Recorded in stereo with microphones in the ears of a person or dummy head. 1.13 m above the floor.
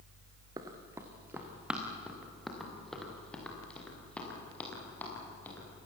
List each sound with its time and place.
0.6 s running footsteps: 15° right (ahead or behind), 3 m; by 5.7 s 20° left (ahead or behind), 10.5 m